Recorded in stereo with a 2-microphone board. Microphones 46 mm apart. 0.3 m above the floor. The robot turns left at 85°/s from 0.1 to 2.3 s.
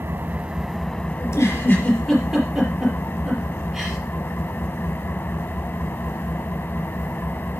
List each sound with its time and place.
0.0 s an engine running: 125° right, 0.9 m; by 7.6 s 50° left, 0.9 m
1.2 s a giggle: 75° left (ahead or behind), 4.5 m; by 4.0 s 15° right (ahead or behind), 4.5 m